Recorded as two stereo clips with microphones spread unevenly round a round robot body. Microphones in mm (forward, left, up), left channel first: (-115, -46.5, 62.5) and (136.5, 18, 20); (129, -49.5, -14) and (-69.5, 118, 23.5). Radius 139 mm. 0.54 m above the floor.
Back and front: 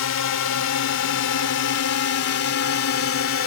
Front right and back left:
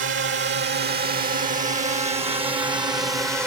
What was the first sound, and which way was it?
A drone, 175° right.